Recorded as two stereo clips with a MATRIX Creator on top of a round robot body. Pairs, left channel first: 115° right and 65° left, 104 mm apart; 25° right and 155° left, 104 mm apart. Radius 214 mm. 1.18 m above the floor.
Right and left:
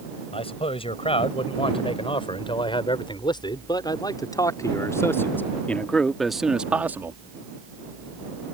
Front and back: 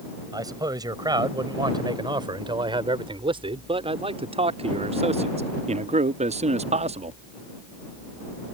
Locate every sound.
0.3 s a man speaking: 145° right; by 7.2 s 135° left